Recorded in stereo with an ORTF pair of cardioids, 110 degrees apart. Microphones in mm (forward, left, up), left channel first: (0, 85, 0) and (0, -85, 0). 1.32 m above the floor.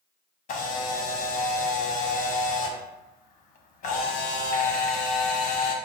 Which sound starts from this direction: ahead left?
A camera shutter, at 0.5 s.